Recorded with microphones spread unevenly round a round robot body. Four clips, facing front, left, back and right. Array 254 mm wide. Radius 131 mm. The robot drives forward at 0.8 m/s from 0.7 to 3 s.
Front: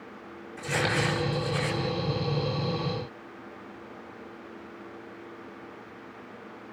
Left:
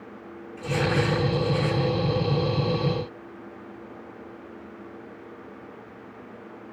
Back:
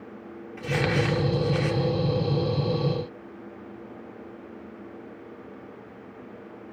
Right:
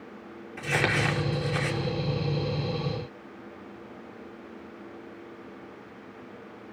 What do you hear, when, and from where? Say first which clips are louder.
0.6 s crumpling: left 2 dB, back 2 dB; 95° right, 5.5 m; by 1.8 s 105° right, 5.5 m